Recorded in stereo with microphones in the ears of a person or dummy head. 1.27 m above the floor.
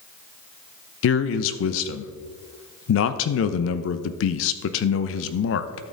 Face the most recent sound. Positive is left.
turn(degrees=80)